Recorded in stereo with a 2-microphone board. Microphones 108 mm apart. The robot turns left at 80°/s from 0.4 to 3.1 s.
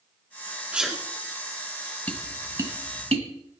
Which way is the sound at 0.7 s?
10° right (ahead or behind).